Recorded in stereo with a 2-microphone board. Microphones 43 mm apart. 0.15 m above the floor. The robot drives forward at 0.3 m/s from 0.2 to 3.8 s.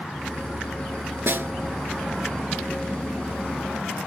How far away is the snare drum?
About 0.6 m.